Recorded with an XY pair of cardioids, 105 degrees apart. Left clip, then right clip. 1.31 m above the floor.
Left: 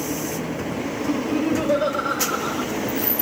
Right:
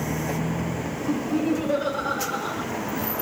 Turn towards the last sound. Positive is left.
turn(degrees=25)